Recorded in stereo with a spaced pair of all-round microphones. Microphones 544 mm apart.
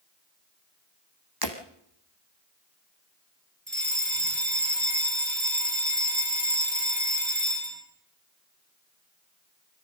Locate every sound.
1.4 s breaking glass: 40° right (ahead or behind), 3.5 m
3.7 s a fire alarm: 55° right (ahead or behind), 4.5 m